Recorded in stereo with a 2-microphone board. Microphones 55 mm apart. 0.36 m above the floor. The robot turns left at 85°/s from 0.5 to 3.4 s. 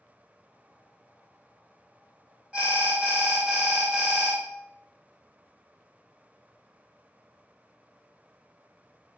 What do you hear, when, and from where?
2.5 s an alarm: 25° right (ahead or behind), 0.6 m; by 4.4 s 20° right (ahead or behind), 0.6 m